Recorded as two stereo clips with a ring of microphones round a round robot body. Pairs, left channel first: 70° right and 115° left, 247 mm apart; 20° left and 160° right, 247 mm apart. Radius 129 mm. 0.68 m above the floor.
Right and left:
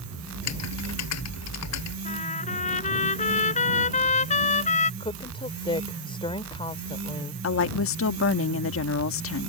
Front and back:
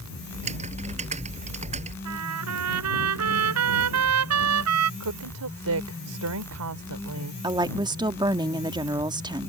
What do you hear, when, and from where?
0.3 s typing on a keyboard: 95° right
2.0 s a trumpet: 130° right
5.0 s a woman speaking: 135° right
7.4 s a woman speaking: 85° right